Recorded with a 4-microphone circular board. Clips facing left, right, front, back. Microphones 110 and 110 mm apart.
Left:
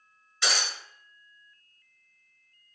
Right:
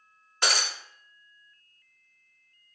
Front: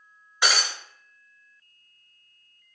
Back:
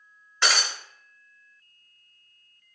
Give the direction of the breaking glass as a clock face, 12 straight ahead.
2 o'clock.